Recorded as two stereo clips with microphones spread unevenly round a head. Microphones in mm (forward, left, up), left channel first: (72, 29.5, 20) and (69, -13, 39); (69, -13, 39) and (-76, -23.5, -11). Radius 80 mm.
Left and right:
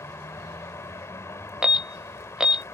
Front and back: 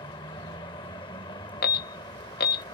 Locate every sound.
0.0 s a vehicle: 65° left
1.6 s an alarm: 5° right